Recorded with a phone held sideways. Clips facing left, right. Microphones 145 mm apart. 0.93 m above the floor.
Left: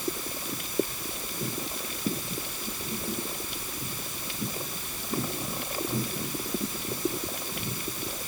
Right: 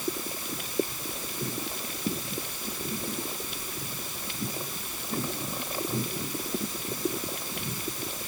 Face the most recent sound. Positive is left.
No sound to turn to.